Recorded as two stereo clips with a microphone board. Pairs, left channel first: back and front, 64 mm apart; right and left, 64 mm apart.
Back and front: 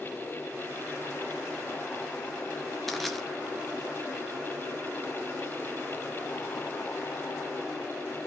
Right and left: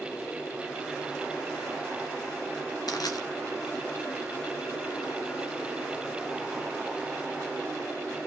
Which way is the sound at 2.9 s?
90° right.